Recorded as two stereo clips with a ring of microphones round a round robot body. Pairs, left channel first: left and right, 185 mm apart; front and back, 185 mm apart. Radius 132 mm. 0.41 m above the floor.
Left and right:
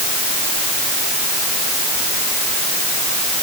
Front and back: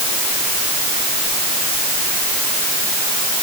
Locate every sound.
Only background noise.